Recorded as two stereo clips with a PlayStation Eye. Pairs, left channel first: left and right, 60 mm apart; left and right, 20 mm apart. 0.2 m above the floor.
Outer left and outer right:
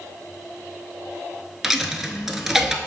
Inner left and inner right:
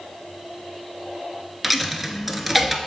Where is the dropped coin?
5° right (ahead or behind), 0.6 m.